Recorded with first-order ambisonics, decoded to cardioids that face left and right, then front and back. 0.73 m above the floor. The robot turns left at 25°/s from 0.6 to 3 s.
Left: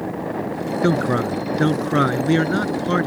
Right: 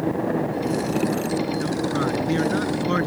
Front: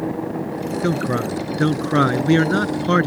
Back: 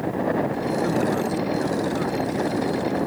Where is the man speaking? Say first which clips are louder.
Left 4 dB, front 3 dB; 60° left; by 3.1 s 5° left.